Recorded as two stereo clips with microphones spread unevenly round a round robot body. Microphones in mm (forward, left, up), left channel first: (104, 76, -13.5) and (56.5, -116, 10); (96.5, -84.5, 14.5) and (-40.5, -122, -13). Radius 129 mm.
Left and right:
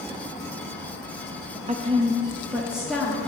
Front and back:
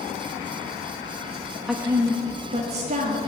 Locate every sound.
1.7 s a woman speaking: 105° right, 0.6 m; by 3.3 s 160° left, 1.6 m